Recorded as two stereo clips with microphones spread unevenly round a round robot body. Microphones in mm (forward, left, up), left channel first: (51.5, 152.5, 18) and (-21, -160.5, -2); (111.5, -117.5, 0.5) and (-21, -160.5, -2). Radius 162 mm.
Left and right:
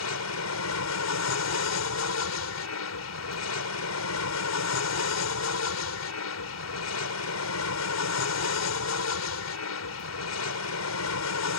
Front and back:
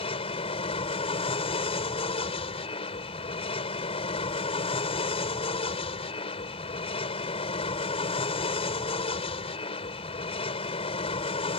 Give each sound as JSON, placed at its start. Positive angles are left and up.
{"t": 0.0, "sound": "an aircraft", "azimuth_deg": 60}